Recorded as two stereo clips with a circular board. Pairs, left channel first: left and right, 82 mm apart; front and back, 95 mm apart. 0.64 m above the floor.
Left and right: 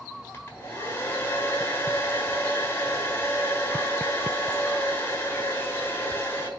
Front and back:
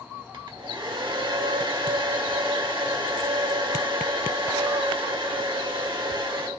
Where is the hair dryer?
150° left, 1.5 m.